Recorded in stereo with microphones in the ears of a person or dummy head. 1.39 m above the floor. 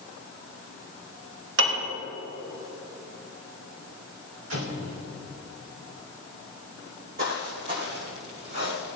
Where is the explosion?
70° right (ahead or behind), 3.5 m.